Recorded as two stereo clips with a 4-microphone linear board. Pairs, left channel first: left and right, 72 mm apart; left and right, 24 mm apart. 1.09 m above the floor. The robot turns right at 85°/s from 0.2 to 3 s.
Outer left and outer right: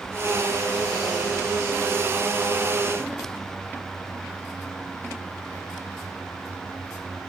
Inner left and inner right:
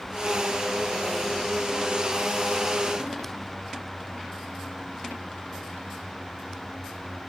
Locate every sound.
Only background noise.